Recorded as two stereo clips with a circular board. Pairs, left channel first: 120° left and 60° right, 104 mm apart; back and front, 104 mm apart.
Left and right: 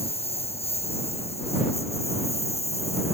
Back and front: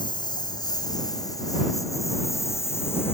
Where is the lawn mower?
135° left; by 3.1 s 115° left.